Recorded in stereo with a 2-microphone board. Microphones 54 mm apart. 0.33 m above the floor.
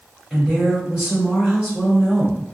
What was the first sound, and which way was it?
A woman speaking, 15° right (ahead or behind).